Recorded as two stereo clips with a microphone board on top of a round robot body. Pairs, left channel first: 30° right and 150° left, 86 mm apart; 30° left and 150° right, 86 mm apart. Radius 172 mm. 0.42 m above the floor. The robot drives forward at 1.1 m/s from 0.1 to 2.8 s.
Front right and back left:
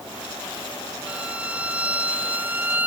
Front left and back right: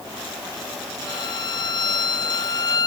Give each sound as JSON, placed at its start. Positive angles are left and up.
{"t": 1.1, "sound": "a violin", "azimuth_deg": 70}